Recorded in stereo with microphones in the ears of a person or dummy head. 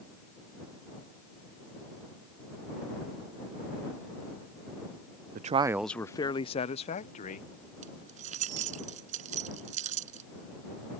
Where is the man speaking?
50° right (ahead or behind); by 7.5 s 45° left (ahead or behind).